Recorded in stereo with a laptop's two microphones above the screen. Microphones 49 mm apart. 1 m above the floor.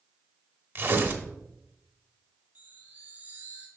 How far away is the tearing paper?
About 0.9 m.